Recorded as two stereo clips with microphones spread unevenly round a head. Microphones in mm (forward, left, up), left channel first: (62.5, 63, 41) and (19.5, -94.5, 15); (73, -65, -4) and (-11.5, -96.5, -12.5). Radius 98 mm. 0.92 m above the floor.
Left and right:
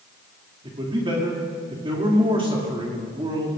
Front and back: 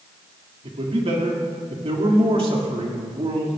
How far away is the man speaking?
About 2.5 m.